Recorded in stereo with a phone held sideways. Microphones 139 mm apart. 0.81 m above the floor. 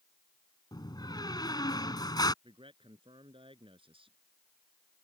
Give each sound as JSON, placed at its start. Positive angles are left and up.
{"t": 0.7, "sound": "a door slam", "side_deg": 30}
{"t": 2.4, "sound": "a man speaking", "side_deg": -40}